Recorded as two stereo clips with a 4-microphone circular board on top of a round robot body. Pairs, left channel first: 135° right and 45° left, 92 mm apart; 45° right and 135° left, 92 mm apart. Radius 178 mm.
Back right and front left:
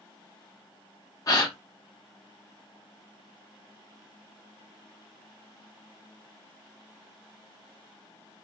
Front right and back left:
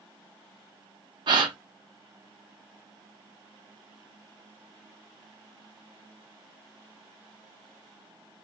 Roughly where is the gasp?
Behind.